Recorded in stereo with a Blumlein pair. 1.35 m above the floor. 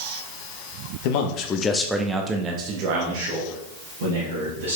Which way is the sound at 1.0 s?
50° left.